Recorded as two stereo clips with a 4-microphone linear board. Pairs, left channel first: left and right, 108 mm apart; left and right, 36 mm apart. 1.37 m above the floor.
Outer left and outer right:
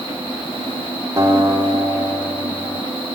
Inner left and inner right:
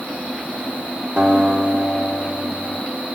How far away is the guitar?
About 1.7 m.